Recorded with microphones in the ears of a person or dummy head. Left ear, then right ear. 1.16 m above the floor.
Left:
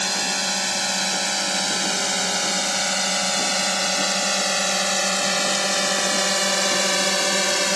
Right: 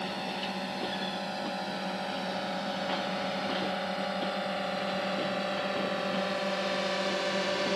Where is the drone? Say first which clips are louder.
Left 11 dB; 70° left (ahead or behind); by 7.8 s 80° left.